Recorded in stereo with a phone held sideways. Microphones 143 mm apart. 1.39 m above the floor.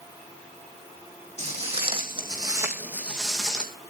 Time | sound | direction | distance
1.4 | footsteps | 50° right (ahead or behind) | 3.5 m